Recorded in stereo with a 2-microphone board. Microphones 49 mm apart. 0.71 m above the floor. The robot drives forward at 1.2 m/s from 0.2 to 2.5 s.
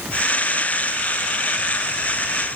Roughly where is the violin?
No violin in this recording.